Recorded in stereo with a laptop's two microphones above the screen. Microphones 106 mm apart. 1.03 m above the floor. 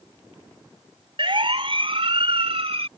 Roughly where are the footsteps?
No footsteps in this recording.